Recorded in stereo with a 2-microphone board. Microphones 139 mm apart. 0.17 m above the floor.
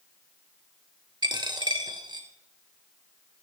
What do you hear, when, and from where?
1.2 s a dropped coin: 30° right (ahead or behind), 1.0 m